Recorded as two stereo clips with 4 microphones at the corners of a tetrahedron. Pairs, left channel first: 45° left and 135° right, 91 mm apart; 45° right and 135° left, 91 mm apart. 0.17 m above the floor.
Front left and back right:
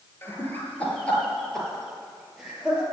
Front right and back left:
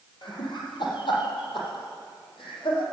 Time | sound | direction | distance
0.2 | laughter | 15° right | 4.5 m